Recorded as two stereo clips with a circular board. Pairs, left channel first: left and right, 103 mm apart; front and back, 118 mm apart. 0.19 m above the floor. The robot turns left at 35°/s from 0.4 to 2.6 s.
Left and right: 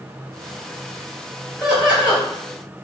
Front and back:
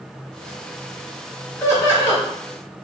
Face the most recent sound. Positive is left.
turn(degrees=-40)